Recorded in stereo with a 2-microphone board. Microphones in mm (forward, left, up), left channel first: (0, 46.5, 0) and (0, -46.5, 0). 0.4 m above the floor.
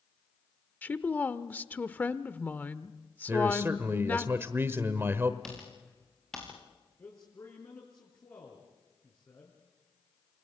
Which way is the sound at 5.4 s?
5° left (ahead or behind).